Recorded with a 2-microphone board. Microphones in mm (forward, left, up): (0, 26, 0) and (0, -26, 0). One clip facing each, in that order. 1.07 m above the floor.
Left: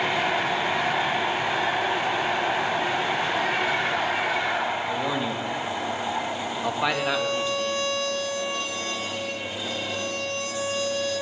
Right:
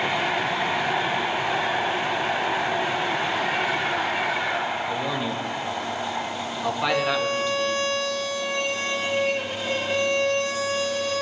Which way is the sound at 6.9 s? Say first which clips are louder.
Right 2 dB; 40° right (ahead or behind).